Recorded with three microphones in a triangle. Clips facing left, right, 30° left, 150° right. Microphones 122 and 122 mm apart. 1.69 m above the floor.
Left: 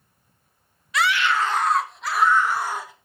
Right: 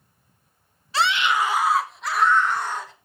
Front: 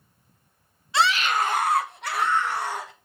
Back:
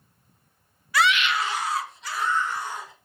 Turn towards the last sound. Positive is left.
turn(degrees=10)